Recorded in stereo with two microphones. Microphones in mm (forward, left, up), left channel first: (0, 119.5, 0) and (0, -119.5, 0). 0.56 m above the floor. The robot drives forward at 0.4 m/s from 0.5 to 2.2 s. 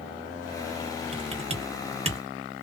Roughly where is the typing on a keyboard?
Right.